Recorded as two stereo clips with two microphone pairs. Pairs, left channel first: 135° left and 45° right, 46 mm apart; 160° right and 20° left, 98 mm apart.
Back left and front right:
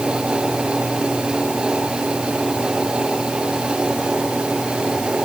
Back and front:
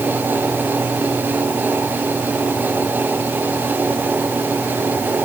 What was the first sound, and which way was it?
Only background noise.